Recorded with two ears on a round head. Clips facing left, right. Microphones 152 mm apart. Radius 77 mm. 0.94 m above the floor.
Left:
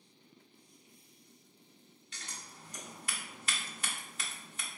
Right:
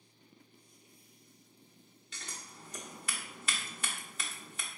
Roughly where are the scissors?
Right.